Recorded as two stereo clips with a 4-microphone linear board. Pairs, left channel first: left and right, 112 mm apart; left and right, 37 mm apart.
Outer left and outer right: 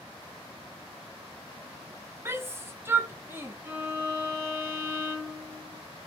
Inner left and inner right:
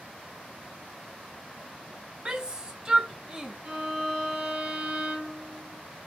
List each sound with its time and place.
2.2 s a shout: 20° right (ahead or behind), 0.7 m
3.6 s a violin: 20° right (ahead or behind), 1.7 m